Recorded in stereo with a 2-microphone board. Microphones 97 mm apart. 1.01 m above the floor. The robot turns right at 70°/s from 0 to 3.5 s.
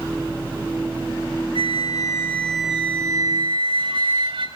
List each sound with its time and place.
1.6 s a flute: 105° left, 2.5 m; by 4.5 s 115° right, 2.5 m